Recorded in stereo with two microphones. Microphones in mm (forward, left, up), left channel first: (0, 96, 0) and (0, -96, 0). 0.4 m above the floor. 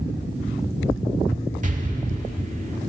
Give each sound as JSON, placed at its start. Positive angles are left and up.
{"t": 1.6, "sound": "an explosion", "side_deg": -40, "distance_m": 0.7}